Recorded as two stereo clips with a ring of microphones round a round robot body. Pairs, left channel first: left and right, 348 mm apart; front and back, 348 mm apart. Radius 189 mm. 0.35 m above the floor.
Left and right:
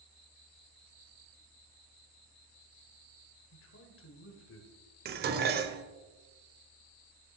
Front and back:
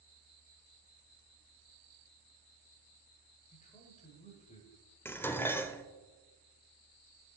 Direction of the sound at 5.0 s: 75° right.